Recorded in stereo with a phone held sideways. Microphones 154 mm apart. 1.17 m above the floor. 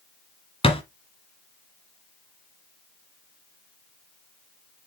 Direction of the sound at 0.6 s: 40° left (ahead or behind).